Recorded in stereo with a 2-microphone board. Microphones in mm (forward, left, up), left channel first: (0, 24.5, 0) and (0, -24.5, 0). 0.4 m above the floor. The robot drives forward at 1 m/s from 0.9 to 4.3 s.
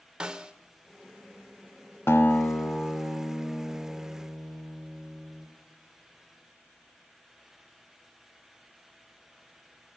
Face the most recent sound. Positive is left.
turn(degrees=15)  # may be behind; listen again after turning